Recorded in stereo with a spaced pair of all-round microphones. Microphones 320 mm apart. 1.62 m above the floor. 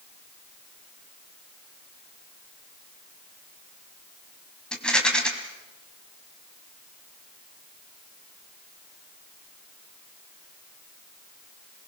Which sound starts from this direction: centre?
A rattle, at 4.7 s.